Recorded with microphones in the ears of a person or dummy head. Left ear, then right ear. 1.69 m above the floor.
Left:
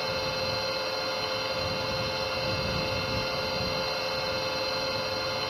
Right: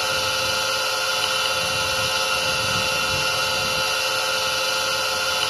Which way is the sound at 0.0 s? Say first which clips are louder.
Right 7 dB; 65° right (ahead or behind).